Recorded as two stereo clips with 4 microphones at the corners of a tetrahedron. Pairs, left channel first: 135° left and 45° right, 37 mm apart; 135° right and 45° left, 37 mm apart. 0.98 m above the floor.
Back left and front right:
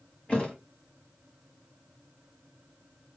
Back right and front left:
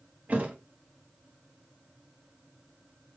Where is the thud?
75° left, 1.4 m.